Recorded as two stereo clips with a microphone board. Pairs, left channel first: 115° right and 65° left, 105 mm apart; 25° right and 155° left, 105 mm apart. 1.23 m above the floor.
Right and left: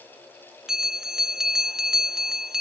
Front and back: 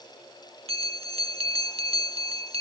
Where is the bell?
150° left.